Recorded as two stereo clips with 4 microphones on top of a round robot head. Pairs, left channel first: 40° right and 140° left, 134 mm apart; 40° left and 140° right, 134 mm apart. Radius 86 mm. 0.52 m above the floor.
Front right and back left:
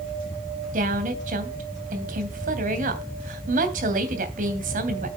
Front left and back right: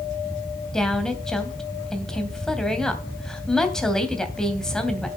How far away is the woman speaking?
About 3 m.